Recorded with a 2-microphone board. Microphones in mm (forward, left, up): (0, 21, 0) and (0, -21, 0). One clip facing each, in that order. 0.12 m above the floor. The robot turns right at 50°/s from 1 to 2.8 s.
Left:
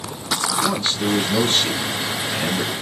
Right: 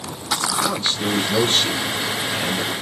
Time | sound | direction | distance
0.6 | a man speaking | 20° right (ahead or behind) | 1.6 m